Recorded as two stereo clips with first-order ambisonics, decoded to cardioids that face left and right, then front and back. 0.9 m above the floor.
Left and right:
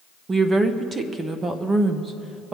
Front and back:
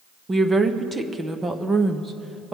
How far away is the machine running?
I don't hear a machine running.